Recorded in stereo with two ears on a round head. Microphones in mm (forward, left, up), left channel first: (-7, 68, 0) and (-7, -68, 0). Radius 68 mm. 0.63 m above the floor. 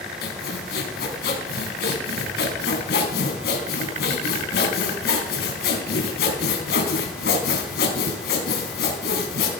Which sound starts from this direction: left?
Sawing, at 0.2 s.